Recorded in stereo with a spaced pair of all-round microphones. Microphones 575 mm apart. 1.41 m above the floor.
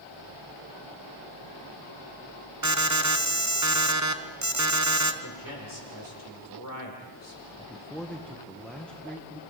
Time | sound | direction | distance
2.6 | an alarm | 30° right (ahead or behind) | 1.0 m
5.2 | a man speaking | 35° left (ahead or behind) | 5 m
7.6 | a man speaking | centre (ahead or behind) | 1.4 m